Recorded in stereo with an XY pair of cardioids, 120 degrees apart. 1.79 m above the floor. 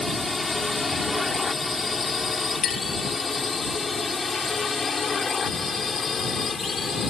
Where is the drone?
15° left; by 7.1 s 35° left.